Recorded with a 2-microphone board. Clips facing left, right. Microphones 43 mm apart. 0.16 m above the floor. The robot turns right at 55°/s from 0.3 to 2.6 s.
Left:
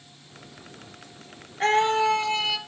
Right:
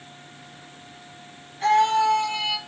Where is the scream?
135° left, 2.5 m; by 2.6 s 170° right, 2.5 m.